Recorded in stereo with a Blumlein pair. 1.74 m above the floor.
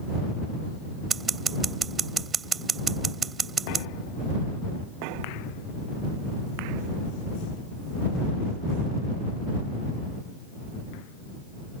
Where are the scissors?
20° right.